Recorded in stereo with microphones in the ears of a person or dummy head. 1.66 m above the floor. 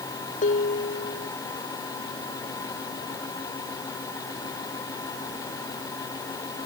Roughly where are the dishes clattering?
Left.